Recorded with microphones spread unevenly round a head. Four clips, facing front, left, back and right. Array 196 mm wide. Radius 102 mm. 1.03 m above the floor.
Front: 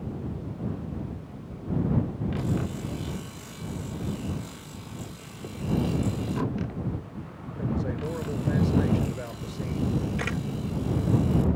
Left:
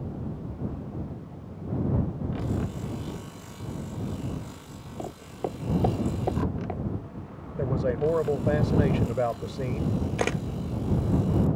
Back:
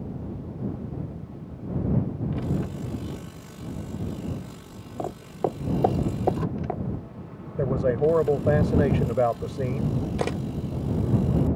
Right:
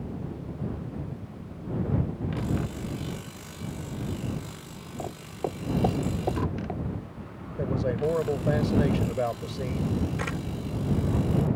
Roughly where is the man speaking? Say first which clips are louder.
Left 1 dB, back 8 dB; behind.